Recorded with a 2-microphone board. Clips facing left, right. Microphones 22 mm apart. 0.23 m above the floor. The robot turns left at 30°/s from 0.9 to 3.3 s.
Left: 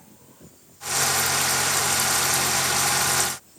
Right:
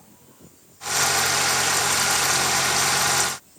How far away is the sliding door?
No sliding door in this recording.